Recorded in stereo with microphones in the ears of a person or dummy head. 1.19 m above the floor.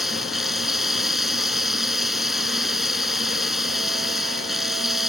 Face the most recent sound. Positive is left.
turn(degrees=0)  # may be behind; listen again after turning